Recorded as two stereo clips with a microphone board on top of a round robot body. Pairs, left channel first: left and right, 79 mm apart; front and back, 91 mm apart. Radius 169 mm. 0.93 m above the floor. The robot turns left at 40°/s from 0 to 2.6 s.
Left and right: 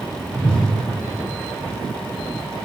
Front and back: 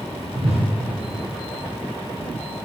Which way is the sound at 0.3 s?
Straight behind.